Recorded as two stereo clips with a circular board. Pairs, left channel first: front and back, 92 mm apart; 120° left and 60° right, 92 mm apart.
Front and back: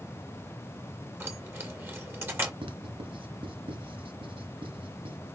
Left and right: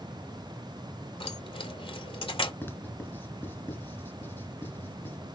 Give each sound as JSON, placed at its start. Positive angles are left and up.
{"t": 1.2, "sound": "keys jangling", "azimuth_deg": 115, "distance_m": 2.0}
{"t": 2.6, "sound": "writing", "azimuth_deg": -175, "distance_m": 2.0}